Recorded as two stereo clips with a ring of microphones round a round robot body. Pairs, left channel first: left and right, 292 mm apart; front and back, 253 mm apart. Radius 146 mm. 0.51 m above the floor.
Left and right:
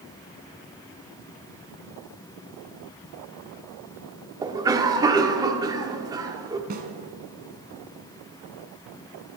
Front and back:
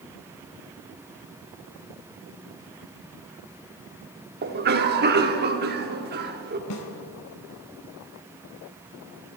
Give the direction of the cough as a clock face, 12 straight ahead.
5 o'clock.